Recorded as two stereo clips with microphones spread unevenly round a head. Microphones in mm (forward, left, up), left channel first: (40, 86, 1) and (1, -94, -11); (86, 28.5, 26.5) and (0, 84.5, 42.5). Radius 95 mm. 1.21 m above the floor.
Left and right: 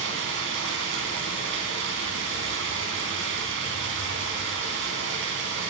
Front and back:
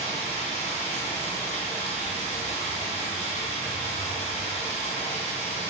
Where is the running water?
85° right, 4 m.